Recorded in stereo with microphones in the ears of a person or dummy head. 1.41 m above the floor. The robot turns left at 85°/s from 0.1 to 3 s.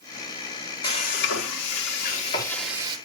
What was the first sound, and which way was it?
Frying, 155° left.